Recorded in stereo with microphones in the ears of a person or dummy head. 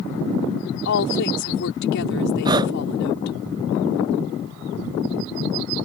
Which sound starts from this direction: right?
Breathing, at 2.5 s.